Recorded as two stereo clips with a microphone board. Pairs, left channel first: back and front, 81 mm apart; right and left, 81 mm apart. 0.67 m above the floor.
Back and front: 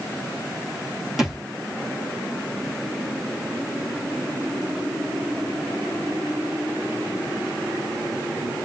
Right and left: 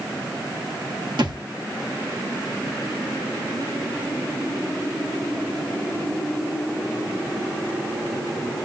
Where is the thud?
85° left, 2.5 m.